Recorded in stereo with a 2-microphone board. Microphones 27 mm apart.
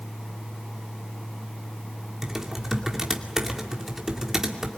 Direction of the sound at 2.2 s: 15° right (ahead or behind).